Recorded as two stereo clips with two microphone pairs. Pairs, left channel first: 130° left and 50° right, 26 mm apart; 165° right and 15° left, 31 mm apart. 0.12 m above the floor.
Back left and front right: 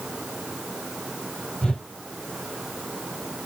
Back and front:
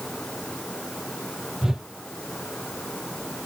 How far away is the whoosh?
About 1.4 m.